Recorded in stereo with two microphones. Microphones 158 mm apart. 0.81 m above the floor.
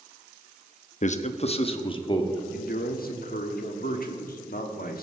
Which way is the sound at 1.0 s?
55° left (ahead or behind).